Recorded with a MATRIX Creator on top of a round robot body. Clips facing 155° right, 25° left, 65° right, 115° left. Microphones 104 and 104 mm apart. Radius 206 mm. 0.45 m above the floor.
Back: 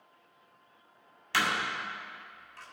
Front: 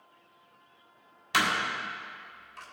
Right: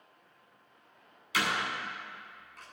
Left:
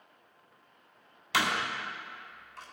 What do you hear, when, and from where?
1.3 s a door slam: 95° left, 3 m